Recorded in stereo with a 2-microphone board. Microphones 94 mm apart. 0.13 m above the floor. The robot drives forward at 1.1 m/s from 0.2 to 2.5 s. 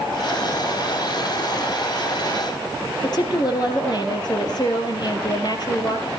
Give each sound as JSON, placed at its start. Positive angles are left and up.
{"t": 3.0, "sound": "a woman speaking", "side_deg": 45, "distance_m": 3.0}